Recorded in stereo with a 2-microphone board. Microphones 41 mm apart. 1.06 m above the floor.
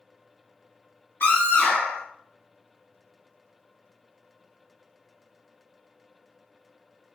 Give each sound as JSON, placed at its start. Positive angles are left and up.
{"t": 1.2, "sound": "a scream", "side_deg": 70, "distance_m": 2.0}